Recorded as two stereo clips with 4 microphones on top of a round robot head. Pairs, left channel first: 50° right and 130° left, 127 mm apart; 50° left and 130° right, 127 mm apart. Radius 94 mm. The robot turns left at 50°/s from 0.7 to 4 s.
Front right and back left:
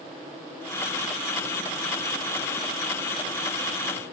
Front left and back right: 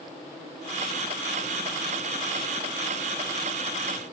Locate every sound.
Only background noise.